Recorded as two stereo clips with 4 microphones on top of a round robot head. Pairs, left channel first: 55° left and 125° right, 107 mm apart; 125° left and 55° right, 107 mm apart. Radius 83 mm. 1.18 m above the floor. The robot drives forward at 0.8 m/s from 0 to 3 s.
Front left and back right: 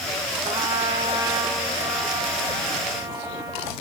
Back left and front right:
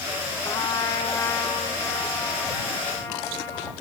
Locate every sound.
0.5 s a trumpet: 175° right, 0.6 m; by 3.7 s straight behind, 2.5 m